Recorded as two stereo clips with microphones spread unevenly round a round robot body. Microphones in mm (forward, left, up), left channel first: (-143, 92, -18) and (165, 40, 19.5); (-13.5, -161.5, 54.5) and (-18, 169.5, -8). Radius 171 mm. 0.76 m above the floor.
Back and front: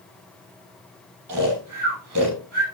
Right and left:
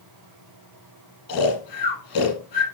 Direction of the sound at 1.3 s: 60° right.